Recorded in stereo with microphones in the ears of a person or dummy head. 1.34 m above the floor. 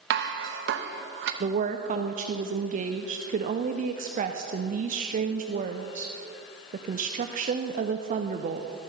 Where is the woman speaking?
40° right (ahead or behind), 0.5 m.